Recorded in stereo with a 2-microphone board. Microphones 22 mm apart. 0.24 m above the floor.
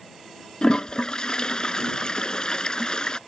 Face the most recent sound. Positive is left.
turn(degrees=35)  # may be behind; listen again after turning